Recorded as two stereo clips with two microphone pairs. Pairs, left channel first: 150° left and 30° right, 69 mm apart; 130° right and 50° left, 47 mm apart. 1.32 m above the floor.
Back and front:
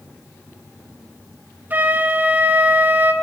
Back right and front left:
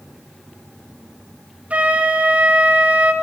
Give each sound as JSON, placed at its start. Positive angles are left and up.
{"t": 1.7, "sound": "a flute", "azimuth_deg": 10, "distance_m": 0.7}